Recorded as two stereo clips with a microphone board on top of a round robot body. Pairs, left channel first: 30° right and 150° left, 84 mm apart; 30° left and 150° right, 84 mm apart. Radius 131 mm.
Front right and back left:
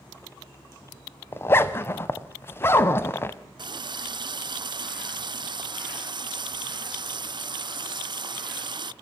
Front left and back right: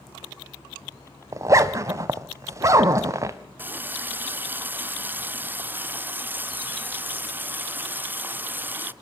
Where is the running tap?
145° left, 0.6 m.